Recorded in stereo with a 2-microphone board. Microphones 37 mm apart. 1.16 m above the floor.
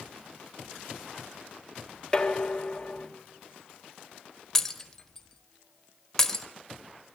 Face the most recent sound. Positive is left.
turn(degrees=10)  # may be behind; listen again after turning